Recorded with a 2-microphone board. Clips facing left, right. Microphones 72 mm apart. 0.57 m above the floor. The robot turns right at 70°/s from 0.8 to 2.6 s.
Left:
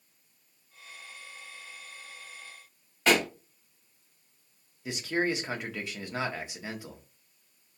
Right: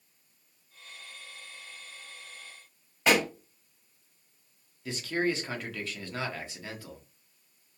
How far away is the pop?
About 1.4 m.